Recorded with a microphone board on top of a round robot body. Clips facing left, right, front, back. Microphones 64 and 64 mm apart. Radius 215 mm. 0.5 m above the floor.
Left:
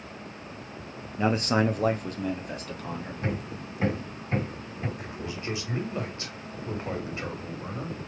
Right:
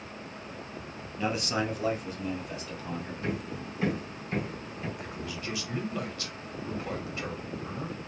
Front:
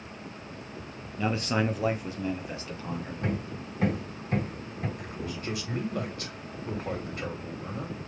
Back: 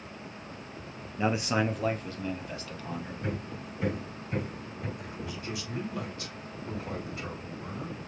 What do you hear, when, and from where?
1.2 s a man speaking: 125° left, 0.9 m; by 3.1 s 55° left, 1.8 m
3.2 s hammering: 30° left, 2 m
5.0 s a man speaking: 30° left, 2 m